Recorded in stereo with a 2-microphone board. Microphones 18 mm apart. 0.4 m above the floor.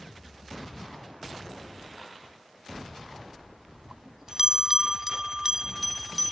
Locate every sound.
2.8 s a bell: 25° right (ahead or behind)